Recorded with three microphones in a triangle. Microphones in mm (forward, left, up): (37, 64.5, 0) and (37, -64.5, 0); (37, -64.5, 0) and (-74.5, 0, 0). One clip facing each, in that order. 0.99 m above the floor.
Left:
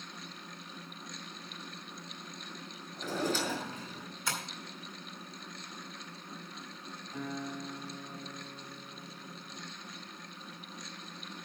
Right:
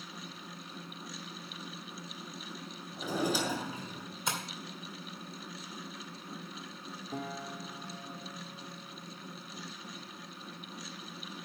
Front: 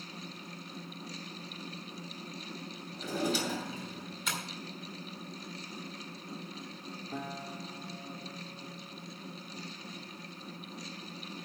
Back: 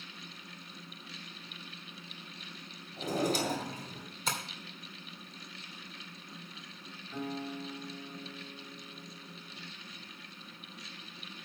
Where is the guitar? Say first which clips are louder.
Left 1 dB, back 4 dB; 80° right, 3 m.